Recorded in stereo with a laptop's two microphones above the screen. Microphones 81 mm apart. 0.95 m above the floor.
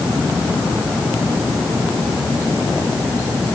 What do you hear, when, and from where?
Only background noise.